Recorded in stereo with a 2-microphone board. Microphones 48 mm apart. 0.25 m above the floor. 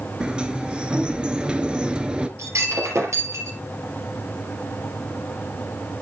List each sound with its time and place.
0.2 s a sliding door: 20° right (ahead or behind), 0.7 m
2.4 s breaking glass: 80° right, 3 m